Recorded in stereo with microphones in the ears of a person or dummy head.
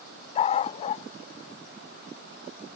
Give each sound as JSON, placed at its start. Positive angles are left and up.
{"t": 0.3, "sound": "a dog barking", "side_deg": 35}